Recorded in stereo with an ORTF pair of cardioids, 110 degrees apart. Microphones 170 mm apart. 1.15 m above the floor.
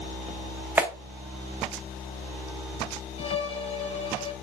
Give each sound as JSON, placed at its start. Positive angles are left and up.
{"t": 0.8, "sound": "a clap", "azimuth_deg": -10, "distance_m": 1.3}
{"t": 3.2, "sound": "a violin", "azimuth_deg": 35, "distance_m": 1.1}